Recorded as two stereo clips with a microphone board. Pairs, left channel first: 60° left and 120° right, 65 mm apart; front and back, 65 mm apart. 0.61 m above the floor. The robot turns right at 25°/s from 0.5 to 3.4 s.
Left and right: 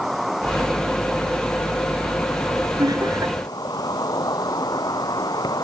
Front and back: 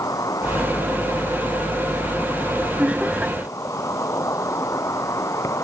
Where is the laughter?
115° right; by 3.4 s 100° right.